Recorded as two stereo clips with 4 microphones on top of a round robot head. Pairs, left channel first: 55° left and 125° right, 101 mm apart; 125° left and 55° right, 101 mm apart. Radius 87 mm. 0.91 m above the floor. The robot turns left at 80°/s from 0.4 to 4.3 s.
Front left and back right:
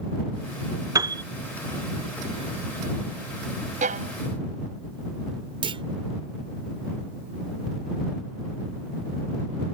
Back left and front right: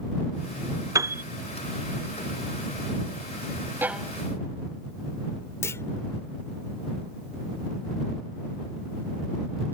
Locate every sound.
0.9 s a piano: 95° right; by 1.2 s 115° right
3.8 s a violin: 125° right; by 4.1 s 150° right
5.6 s a clunk: 170° right